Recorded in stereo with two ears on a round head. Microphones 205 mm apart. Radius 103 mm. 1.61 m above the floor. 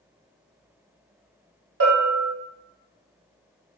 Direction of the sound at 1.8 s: 60° right (ahead or behind).